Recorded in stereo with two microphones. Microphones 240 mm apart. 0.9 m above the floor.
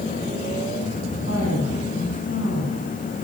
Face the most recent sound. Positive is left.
turn(degrees=60)  # may be behind; listen again after turning